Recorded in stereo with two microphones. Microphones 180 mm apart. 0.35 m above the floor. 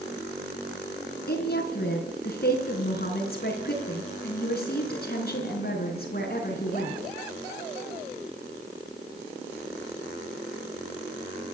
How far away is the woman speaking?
About 4.5 m.